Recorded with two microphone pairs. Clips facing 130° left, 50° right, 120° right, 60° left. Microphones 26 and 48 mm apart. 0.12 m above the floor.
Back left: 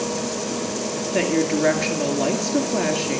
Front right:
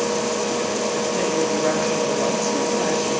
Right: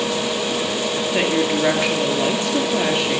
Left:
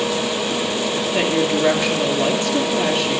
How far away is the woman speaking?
About 2.5 m.